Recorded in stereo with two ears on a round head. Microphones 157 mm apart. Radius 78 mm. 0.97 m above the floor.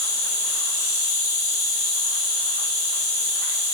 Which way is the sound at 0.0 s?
20° left (ahead or behind).